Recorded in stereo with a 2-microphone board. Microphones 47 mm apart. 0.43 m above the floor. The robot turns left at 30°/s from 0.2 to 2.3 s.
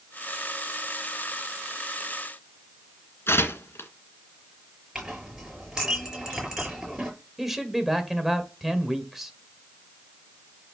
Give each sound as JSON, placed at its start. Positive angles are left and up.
{"t": 3.3, "sound": "tearing paper", "side_deg": 60, "distance_m": 2.0}
{"t": 5.0, "sound": "a clink", "side_deg": -10, "distance_m": 6.5}
{"t": 7.4, "sound": "a man speaking", "side_deg": -5, "distance_m": 1.9}